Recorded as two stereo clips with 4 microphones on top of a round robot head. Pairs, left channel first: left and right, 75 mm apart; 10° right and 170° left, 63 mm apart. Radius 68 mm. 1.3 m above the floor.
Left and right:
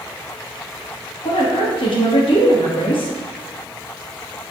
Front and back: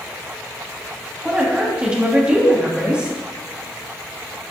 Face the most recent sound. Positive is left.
turn(degrees=95)